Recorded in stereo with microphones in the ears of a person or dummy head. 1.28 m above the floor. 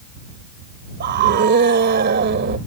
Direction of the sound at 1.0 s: 55° right (ahead or behind).